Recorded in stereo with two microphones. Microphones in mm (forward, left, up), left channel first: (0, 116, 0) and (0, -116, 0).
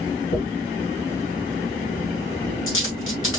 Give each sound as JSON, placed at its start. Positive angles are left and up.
{"t": 0.3, "sound": "a dropped coin", "side_deg": 70, "distance_m": 2.5}